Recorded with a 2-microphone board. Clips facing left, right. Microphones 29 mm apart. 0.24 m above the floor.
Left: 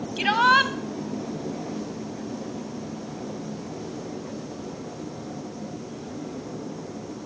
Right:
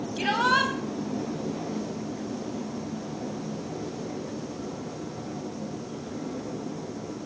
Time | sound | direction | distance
0.2 | a shout | 25° left (ahead or behind) | 1.2 m